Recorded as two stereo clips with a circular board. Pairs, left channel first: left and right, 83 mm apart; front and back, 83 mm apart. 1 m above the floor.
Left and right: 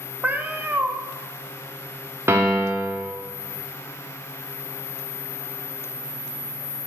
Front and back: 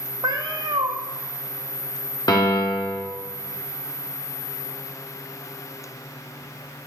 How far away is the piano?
About 1.2 m.